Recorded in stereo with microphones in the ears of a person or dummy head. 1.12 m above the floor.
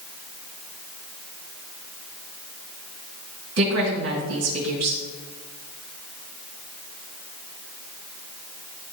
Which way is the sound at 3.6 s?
80° right.